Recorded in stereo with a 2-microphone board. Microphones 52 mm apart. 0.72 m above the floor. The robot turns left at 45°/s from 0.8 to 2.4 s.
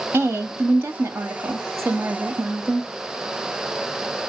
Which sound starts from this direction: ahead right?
A woman speaking, at 0.1 s.